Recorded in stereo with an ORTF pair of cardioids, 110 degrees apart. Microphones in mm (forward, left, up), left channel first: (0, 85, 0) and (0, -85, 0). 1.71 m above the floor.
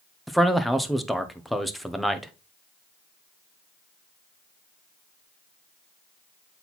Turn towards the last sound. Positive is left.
turn(degrees=0)